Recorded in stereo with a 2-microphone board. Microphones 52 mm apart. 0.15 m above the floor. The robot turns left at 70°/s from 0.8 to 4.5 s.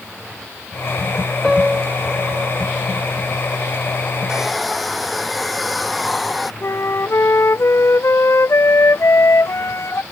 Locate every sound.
1.4 s a piano: 5° left; by 2.7 s 85° right
4.3 s a hair dryer: 15° right (ahead or behind); by 6.5 s centre (ahead or behind)
6.6 s a flute: 60° left (ahead or behind)